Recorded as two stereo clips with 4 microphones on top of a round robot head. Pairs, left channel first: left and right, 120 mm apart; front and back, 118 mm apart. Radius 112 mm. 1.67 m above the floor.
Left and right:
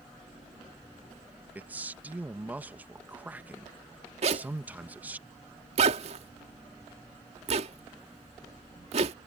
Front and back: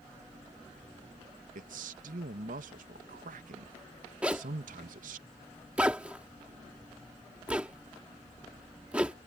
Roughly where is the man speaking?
Behind.